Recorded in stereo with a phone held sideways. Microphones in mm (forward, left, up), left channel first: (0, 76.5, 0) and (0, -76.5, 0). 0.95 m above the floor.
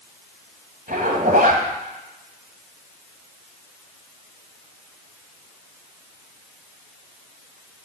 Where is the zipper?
70° right (ahead or behind), 1.8 m.